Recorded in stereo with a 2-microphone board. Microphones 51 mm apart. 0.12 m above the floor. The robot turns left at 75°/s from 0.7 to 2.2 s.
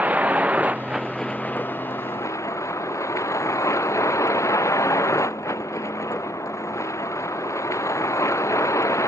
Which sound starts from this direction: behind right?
A vehicle, at 0.0 s.